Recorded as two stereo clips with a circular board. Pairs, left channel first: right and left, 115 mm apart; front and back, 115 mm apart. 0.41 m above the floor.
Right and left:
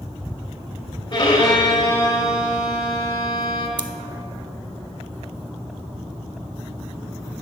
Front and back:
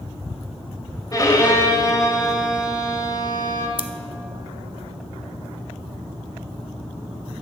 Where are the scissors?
40° left, 0.5 m.